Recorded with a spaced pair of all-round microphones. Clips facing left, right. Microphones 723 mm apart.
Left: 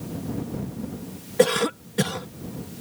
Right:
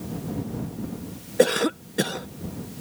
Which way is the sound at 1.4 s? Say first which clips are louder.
Even; 35° left (ahead or behind).